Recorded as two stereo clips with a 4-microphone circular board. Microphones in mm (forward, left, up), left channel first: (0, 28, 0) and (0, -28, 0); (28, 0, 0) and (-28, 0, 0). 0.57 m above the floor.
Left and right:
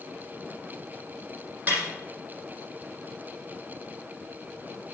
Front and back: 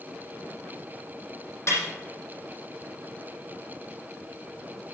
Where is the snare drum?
35° right, 7 m.